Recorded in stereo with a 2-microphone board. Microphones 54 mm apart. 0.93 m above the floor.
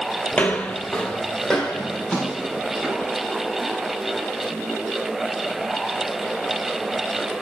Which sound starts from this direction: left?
Footsteps, at 0.3 s.